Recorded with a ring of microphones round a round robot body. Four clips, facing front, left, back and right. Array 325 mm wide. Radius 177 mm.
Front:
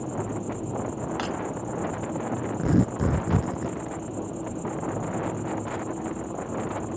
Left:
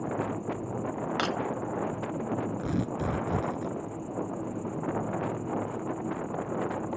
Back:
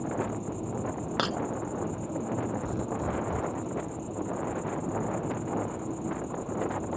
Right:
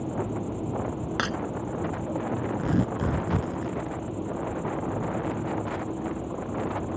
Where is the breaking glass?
160° right.